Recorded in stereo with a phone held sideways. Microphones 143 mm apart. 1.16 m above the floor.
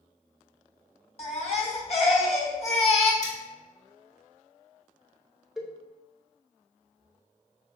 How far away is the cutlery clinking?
About 1.5 m.